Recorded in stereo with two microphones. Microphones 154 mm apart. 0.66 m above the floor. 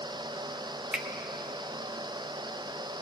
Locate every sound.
0.9 s a finger snap: 5° right (ahead or behind), 0.8 m